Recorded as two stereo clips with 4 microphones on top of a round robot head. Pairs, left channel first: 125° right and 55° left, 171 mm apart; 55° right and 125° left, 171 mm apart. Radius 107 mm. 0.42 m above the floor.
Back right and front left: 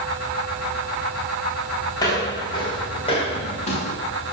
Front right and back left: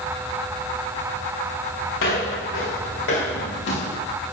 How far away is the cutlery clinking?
No cutlery clinking in this recording.